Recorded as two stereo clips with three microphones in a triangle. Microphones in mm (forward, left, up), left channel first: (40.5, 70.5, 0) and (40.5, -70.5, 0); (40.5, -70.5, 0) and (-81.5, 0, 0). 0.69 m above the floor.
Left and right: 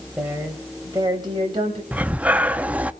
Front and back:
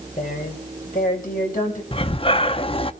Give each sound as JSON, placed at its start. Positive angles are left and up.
{"t": 0.2, "sound": "a woman speaking", "azimuth_deg": -10, "distance_m": 3.5}
{"t": 1.9, "sound": "breathing", "azimuth_deg": -15, "distance_m": 0.5}